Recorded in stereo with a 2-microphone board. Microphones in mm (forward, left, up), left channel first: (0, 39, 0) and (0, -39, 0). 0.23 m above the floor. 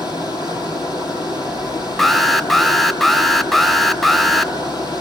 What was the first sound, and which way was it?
Running water, 70° left (ahead or behind).